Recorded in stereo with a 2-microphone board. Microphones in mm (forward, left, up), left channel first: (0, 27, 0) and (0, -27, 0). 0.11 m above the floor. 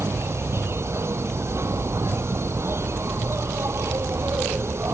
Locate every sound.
0.0 s an insect: 55° right (ahead or behind)